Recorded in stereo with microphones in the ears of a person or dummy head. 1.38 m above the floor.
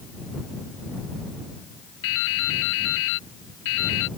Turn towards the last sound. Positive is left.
turn(degrees=70)  # may be behind; listen again after turning